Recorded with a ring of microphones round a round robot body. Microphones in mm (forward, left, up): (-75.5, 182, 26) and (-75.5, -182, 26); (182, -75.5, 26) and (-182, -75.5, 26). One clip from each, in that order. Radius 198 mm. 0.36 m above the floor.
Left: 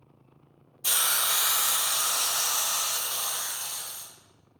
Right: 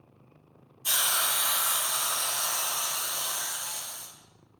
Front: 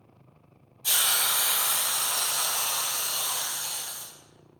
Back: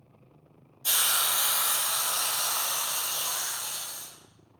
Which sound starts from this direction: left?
A hiss, at 0.8 s.